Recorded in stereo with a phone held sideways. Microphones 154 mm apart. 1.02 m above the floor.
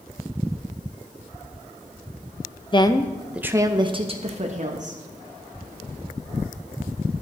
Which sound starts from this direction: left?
A woman speaking, at 2.7 s.